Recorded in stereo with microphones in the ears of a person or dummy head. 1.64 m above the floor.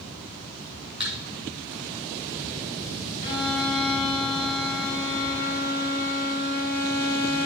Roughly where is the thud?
Centre.